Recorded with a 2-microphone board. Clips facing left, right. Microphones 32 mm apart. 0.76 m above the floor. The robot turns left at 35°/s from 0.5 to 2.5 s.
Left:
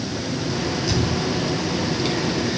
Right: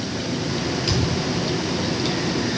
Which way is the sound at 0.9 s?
85° right.